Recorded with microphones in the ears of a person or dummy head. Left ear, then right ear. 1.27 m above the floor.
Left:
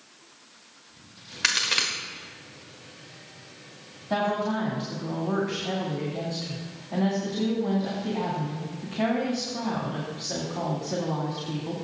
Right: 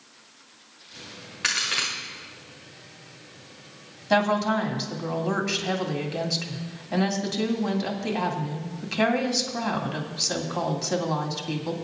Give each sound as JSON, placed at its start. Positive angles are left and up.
{"t": 1.4, "sound": "a crack", "side_deg": 15, "distance_m": 1.4}
{"t": 4.1, "sound": "a woman speaking", "side_deg": -70, "distance_m": 2.5}